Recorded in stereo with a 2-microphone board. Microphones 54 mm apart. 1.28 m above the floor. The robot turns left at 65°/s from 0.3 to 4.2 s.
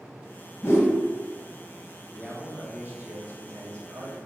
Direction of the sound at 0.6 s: 50° left (ahead or behind).